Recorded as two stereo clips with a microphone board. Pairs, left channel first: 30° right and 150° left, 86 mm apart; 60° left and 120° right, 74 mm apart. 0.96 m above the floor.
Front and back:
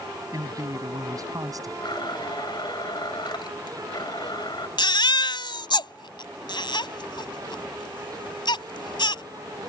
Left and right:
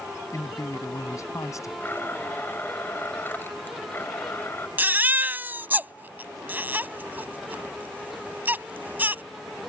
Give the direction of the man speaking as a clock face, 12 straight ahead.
9 o'clock.